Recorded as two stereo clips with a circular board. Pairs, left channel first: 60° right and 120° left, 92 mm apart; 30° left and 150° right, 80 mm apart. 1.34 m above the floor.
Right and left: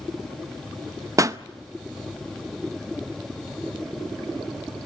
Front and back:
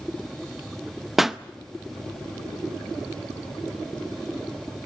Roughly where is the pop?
Behind left.